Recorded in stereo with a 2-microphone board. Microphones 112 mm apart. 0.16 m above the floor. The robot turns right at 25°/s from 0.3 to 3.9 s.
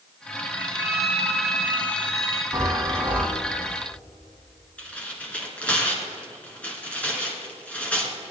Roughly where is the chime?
Right.